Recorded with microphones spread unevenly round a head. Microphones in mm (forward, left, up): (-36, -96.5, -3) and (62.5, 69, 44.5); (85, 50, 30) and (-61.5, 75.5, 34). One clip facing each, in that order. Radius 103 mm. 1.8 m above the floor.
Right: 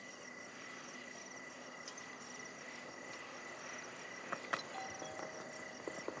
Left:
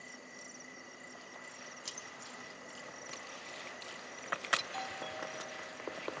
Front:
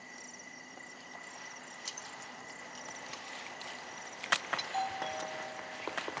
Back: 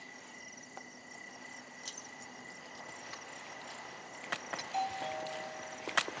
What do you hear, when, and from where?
1.9 s keys jangling: 70° left; by 4.7 s 55° left
4.6 s a doorbell: 90° left